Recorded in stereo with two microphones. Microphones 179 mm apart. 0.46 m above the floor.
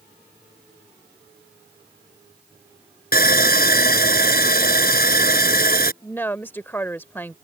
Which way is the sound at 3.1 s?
60° left (ahead or behind).